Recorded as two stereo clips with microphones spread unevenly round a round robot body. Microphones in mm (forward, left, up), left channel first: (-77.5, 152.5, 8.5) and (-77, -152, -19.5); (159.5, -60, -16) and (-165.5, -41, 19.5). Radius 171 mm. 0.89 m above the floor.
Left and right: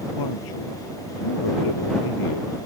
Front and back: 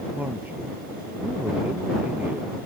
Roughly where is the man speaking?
Left.